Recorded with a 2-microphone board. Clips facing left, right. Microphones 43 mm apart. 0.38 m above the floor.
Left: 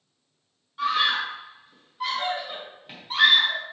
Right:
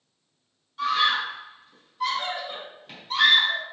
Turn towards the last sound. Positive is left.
turn(degrees=15)  # may be behind; listen again after turning